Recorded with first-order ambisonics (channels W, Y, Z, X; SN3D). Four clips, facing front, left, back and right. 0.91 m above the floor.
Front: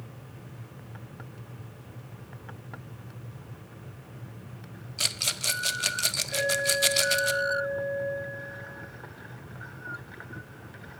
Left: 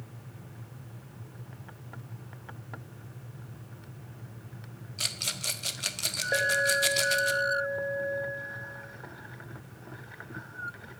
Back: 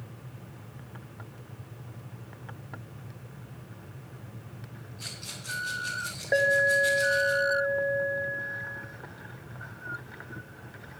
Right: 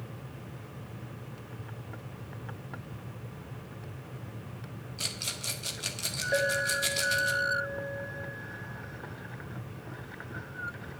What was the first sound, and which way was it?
A rattle, 15° left.